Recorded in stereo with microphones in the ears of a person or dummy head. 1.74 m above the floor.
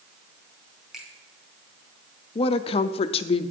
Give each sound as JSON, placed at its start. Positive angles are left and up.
{"t": 0.9, "sound": "a finger snap", "side_deg": 0, "distance_m": 2.5}
{"t": 2.4, "sound": "a woman speaking", "side_deg": 35, "distance_m": 0.5}